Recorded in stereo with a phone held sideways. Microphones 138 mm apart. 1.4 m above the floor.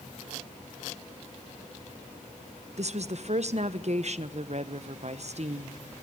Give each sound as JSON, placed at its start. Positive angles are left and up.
{"t": 2.8, "sound": "a woman speaking", "side_deg": -55, "distance_m": 1.2}